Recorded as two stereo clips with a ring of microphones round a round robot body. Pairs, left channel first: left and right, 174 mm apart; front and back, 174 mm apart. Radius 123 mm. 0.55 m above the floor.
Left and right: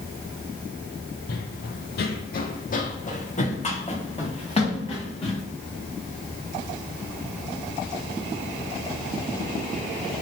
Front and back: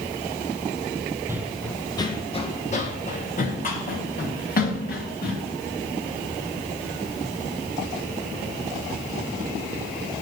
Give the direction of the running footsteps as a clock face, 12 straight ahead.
8 o'clock.